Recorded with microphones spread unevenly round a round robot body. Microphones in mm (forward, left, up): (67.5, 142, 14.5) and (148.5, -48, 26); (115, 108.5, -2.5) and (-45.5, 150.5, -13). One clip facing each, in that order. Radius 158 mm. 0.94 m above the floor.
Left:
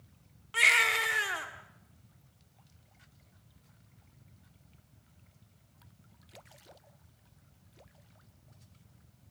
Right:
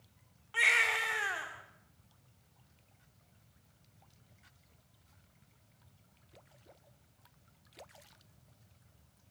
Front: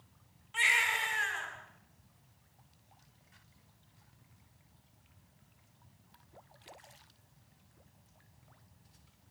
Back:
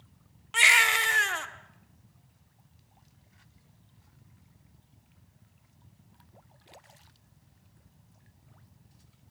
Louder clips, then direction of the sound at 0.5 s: Left 3 dB, back 7 dB; 175° left.